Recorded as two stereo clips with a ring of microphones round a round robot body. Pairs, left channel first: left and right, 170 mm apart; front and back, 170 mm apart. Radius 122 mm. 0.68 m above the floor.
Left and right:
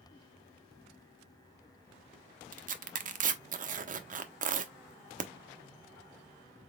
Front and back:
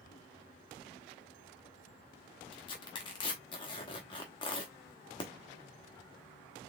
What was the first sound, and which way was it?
Tearing paper, 60° right.